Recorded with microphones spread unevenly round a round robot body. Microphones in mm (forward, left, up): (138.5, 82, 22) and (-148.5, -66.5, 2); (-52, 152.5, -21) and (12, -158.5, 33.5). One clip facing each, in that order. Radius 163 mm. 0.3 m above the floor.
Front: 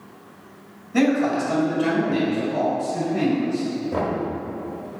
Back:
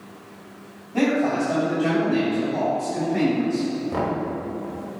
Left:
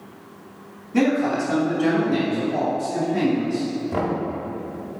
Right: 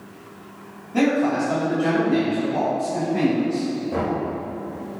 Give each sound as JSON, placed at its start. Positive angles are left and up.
{"t": 0.9, "sound": "a man speaking", "azimuth_deg": 35, "distance_m": 1.9}
{"t": 3.9, "sound": "knocking", "azimuth_deg": 145, "distance_m": 1.0}